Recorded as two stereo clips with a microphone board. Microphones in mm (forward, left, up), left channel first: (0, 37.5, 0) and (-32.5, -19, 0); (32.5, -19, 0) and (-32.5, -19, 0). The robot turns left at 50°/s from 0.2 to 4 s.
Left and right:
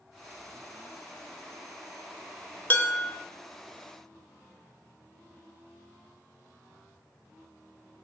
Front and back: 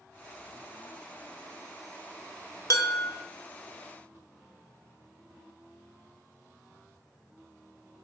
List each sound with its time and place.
2.7 s dishes clattering: 5° left, 1.1 m; by 3.1 s 15° right, 1.1 m